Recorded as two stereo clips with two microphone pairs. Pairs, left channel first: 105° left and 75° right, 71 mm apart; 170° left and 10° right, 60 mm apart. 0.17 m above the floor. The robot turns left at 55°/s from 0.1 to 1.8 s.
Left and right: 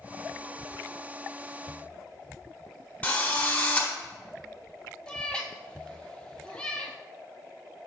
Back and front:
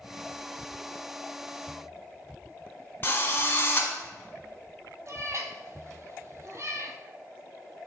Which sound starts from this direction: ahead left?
A cat meowing, at 5.1 s.